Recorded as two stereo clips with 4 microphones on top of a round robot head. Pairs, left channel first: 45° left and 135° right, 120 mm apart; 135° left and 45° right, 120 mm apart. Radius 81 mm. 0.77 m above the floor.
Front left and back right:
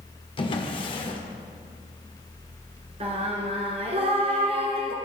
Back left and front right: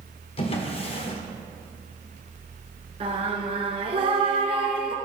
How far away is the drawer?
About 1.5 m.